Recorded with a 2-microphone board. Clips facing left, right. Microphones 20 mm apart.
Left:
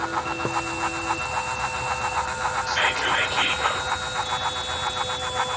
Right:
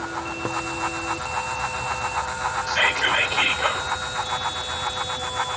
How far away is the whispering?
About 1.6 m.